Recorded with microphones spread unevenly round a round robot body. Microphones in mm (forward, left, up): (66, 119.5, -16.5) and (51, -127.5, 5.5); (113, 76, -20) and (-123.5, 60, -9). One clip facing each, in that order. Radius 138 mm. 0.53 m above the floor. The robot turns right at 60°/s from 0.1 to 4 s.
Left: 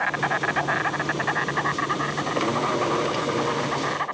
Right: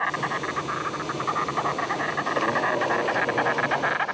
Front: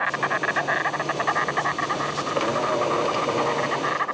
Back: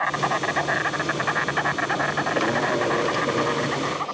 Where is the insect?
60° left; by 4.1 s 70° right.